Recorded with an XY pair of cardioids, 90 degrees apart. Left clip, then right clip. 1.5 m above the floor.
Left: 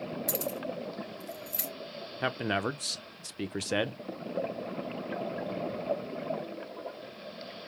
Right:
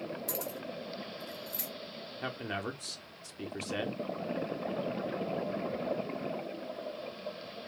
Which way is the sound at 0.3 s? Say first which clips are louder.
Left 4 dB; 45° left.